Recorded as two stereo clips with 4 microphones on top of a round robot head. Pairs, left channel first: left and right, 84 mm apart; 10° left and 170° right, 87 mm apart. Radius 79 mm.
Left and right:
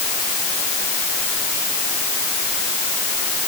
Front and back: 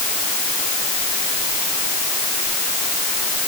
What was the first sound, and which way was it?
Only background noise.